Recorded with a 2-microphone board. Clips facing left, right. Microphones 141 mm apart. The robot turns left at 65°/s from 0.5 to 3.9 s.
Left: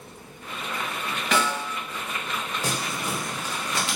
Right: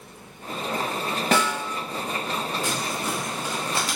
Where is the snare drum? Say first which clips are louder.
Right 1 dB; 45° right (ahead or behind), 0.7 m; by 1.6 s 60° right (ahead or behind), 0.7 m.